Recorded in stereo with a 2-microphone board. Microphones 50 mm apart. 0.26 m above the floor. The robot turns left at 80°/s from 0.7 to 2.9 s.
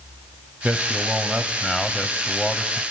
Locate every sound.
0.6 s a man speaking: 100° right, 1.1 m; by 2.8 s 90° left, 1.1 m